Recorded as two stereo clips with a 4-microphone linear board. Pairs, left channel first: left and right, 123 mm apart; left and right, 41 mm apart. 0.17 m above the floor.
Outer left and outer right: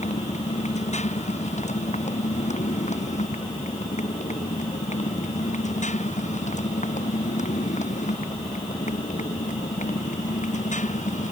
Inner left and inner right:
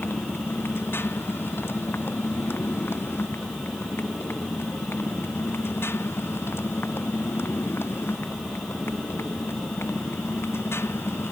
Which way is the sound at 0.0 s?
65° left (ahead or behind).